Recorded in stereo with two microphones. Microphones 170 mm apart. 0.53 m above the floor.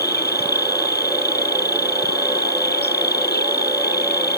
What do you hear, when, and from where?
0.0 s an insect: 75° left (ahead or behind)